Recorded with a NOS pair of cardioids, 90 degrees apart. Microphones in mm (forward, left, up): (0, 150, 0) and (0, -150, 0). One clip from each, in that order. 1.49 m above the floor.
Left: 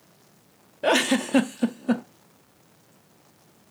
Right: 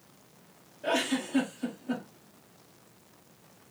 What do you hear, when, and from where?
0.8 s a giggle: 65° left, 0.7 m